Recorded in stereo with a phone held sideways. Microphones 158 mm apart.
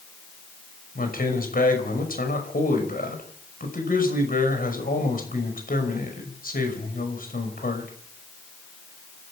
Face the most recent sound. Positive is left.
turn(degrees=65)  # may be behind; listen again after turning